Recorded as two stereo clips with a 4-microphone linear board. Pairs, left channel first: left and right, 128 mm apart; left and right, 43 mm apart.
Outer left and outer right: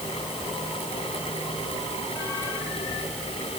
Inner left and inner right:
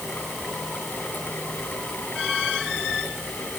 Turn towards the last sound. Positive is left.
No sound to turn to.